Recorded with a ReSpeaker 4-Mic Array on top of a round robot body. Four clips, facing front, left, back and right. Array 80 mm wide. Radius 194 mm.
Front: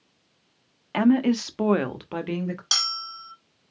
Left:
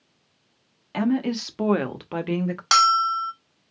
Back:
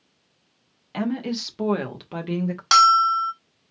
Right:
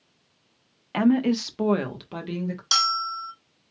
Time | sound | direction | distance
0.9 | a woman speaking | 25° right | 1.4 m
2.7 | a bell | 125° left | 1.2 m